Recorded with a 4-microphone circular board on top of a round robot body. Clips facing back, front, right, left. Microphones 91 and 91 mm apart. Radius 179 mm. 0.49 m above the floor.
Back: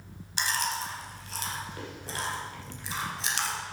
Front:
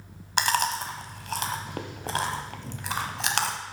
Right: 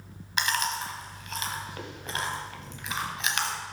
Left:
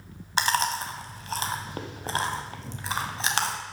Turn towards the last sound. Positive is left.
turn(degrees=35)